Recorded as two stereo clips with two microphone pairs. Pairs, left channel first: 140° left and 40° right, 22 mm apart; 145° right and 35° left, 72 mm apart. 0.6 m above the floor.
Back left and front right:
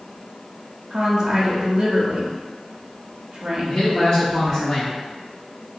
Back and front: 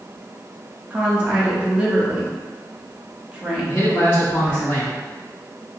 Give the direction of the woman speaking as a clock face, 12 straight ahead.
1 o'clock.